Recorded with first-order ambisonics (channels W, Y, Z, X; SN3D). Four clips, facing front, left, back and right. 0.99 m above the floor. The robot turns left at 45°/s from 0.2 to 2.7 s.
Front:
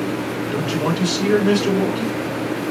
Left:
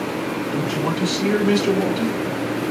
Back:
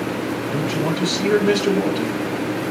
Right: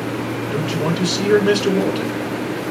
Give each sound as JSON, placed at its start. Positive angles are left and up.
{"t": 0.5, "sound": "a man speaking", "azimuth_deg": -35, "distance_m": 3.5}